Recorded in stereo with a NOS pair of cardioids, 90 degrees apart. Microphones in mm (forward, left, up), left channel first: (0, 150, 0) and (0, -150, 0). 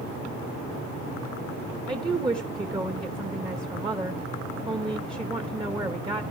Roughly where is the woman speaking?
Ahead.